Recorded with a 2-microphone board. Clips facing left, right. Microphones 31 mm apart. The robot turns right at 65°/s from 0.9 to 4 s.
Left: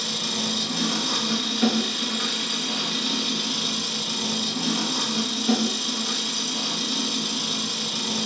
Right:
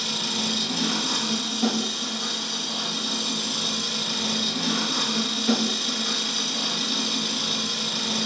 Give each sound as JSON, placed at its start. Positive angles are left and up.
{"t": 0.0, "sound": "an engine running", "azimuth_deg": 0, "distance_m": 3.5}